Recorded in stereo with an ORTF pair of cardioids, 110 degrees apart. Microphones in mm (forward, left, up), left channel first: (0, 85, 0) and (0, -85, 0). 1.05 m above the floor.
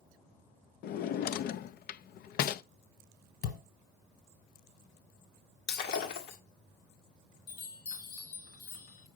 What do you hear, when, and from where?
0.8 s a drawer: 65° left, 0.6 m
3.4 s a thud: 65° left, 3 m
5.7 s breaking glass: 70° left, 1.8 m
7.5 s a chime: 65° left, 3.5 m